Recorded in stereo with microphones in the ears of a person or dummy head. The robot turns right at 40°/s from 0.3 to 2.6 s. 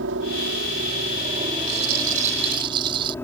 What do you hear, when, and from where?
0.0 s a helicopter: 80° right; by 3.2 s 10° left
1.7 s a rattle: 65° right; by 3.1 s 25° right